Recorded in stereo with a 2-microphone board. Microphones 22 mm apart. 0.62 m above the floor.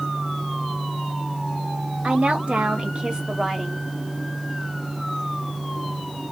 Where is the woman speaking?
60° right (ahead or behind), 1.2 m; by 3.9 s 5° right (ahead or behind), 1.1 m.